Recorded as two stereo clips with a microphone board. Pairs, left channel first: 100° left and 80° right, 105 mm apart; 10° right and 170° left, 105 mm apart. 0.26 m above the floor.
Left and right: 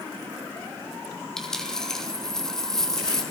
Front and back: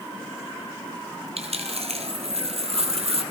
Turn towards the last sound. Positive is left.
turn(degrees=-175)